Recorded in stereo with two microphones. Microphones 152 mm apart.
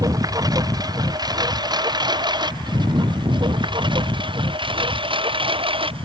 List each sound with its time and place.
0.0 s a lawn mower: 25° right (ahead or behind); by 6.1 s 35° right (ahead or behind)